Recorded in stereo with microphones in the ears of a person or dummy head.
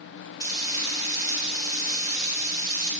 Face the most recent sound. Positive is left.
turn(degrees=30)  # may be behind; listen again after turning